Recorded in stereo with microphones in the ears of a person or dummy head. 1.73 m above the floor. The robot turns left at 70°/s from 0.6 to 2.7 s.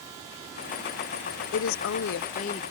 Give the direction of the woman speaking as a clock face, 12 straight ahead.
8 o'clock.